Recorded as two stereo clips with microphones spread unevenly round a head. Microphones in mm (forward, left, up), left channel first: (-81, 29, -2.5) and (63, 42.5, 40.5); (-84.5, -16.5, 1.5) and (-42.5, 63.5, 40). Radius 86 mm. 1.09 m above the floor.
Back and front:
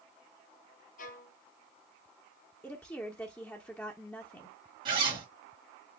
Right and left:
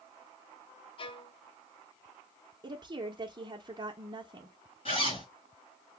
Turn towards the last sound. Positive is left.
turn(degrees=-55)